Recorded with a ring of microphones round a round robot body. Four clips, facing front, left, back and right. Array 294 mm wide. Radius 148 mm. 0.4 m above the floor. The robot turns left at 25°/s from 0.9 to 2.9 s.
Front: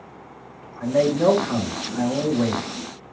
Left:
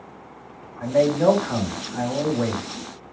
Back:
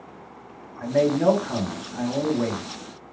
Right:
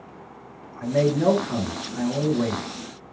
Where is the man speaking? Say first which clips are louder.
Left 2 dB, front 1 dB; 10° right, 1.9 m; by 2.6 s 55° right, 1.9 m.